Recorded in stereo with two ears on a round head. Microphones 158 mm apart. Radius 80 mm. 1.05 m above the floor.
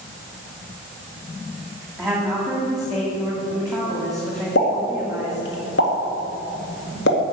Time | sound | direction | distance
2.0 | a woman speaking | centre (ahead or behind) | 2 m
4.5 | a pop | 70° left (ahead or behind) | 2 m